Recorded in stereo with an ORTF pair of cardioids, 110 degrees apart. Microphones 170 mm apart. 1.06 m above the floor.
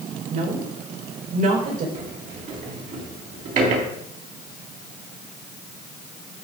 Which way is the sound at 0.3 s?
50° right.